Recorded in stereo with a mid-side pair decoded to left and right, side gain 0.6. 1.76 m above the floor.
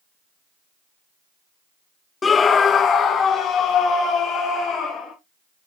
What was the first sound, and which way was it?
A scream, 25° left.